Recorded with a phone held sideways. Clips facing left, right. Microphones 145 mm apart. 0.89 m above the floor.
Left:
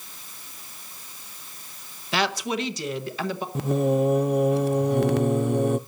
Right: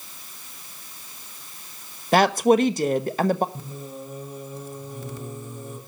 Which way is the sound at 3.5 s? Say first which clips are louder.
Left 16 dB; 75° left (ahead or behind).